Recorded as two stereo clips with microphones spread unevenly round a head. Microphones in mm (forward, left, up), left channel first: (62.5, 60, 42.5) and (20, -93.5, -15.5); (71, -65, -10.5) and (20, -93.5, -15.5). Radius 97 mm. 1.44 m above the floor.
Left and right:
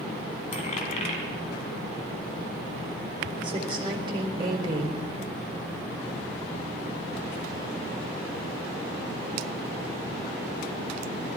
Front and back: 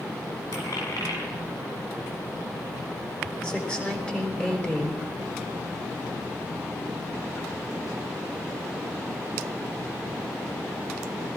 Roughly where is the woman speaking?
Ahead right.